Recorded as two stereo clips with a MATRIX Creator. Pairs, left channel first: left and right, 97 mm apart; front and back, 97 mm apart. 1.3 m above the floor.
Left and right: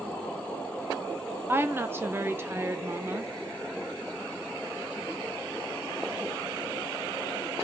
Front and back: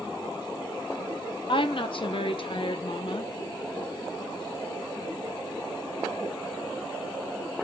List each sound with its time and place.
1.5 s a woman speaking: 25° right, 0.9 m